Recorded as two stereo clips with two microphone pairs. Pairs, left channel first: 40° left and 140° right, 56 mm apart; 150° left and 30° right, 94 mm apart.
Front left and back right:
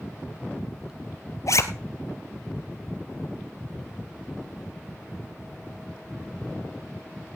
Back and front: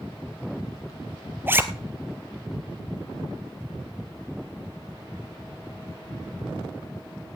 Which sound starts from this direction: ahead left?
A zipper, at 1.5 s.